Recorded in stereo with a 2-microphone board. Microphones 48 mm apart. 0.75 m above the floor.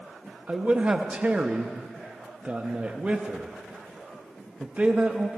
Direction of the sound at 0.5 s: 25° right (ahead or behind).